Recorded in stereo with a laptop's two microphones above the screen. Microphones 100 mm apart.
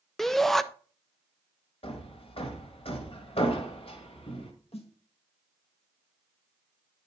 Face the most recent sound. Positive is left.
turn(degrees=70)  # may be behind; listen again after turning